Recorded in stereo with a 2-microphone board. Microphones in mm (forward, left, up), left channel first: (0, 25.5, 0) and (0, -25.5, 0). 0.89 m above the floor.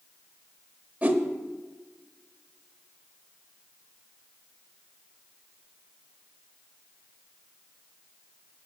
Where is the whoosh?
25° right (ahead or behind), 1.0 m.